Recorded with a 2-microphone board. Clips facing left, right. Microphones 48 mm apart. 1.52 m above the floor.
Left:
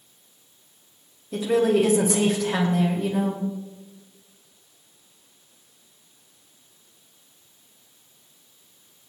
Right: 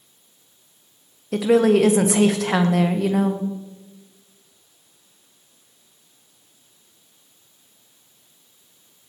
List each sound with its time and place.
1.3 s a woman speaking: 80° right, 1.6 m